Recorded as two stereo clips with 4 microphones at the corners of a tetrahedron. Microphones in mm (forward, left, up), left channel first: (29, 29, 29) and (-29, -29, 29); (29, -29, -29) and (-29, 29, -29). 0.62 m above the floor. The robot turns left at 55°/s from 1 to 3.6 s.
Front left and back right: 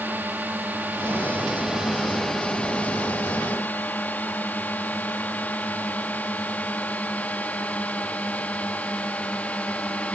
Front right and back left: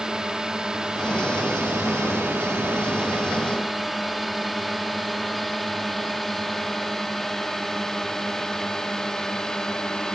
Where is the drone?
160° right; by 10.2 s 20° left.